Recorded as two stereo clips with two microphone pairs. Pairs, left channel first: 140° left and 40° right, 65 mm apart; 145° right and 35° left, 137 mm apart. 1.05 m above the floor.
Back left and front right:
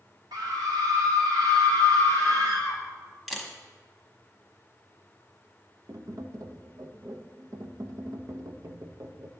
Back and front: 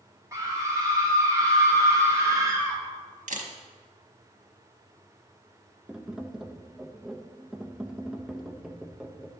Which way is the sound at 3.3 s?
45° left.